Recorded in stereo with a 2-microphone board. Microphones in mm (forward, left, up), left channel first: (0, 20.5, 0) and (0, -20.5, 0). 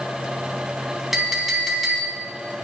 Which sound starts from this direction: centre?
A clink, at 1.1 s.